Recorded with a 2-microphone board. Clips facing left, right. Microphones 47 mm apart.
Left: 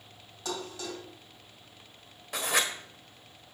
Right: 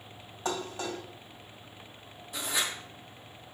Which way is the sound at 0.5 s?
30° right (ahead or behind).